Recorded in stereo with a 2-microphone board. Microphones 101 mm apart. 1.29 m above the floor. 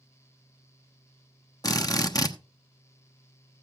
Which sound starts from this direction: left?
A drill, at 1.6 s.